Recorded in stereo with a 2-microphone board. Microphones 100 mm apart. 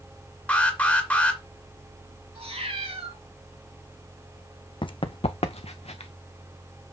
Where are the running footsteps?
55° left (ahead or behind), 0.7 m; by 6.1 s 85° left, 1.4 m.